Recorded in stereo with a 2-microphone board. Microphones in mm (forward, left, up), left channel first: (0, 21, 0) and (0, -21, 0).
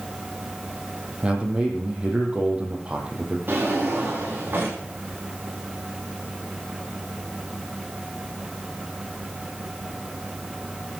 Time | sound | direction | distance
1.2 | a man speaking | 25° right (ahead or behind) | 4.5 m
3.5 | a drawer | 55° right (ahead or behind) | 8.5 m